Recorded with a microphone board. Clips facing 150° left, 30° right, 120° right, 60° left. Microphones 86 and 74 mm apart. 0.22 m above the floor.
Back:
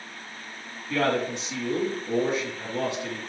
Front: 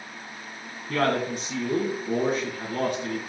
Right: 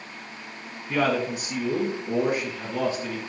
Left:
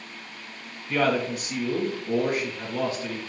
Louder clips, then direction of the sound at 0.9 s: Front 1 dB, even; 55° right.